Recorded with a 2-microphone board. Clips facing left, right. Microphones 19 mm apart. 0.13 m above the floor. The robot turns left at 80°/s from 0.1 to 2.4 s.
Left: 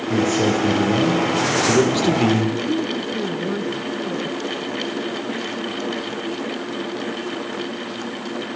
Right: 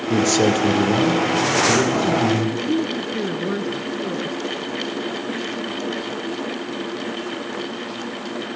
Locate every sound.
0.1 s a man speaking: 115° right, 4.5 m; by 2.5 s 65° left, 4.5 m
2.6 s a woman speaking: 20° right (ahead or behind), 1.3 m